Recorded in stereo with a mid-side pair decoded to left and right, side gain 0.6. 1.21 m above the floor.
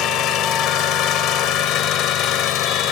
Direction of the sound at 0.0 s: 60° left.